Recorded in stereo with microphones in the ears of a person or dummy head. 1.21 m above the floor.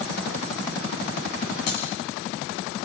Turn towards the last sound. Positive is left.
turn(degrees=55)  # may be behind; listen again after turning